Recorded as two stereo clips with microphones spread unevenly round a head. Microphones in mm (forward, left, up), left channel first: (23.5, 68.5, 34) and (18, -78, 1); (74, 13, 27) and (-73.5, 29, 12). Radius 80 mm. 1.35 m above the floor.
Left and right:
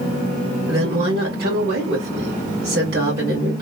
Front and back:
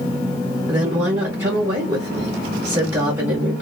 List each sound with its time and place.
0.7 s a woman speaking: 115° right, 1.3 m